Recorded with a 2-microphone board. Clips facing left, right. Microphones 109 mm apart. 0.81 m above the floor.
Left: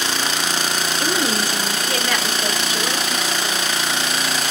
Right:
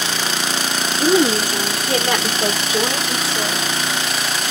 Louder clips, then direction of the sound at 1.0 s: Right 8 dB; 15° right (ahead or behind).